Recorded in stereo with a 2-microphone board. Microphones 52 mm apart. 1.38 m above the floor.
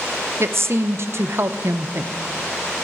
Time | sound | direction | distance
0.4 | a woman speaking | 55° right (ahead or behind) | 0.7 m